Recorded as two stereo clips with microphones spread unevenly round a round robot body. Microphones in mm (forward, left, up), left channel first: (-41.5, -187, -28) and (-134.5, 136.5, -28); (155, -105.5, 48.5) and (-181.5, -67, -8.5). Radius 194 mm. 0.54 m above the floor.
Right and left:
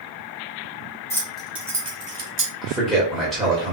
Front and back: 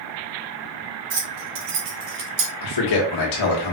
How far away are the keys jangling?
About 2.5 m.